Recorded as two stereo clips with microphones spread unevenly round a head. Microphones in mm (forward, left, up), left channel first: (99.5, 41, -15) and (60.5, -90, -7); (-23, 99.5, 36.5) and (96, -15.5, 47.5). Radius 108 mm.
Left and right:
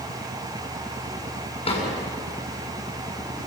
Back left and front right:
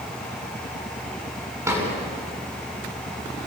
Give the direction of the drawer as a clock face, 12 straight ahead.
11 o'clock.